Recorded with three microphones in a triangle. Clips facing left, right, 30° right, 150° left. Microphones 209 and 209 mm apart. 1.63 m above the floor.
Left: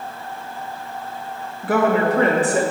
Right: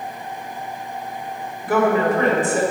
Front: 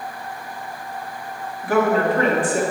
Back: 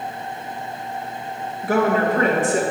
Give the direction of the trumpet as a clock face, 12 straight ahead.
No trumpet in this recording.